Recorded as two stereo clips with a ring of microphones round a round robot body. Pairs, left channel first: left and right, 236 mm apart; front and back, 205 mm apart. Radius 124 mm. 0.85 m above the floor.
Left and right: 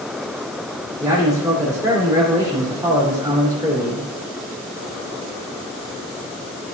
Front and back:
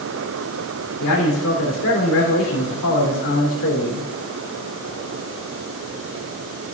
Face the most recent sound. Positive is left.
turn(degrees=-15)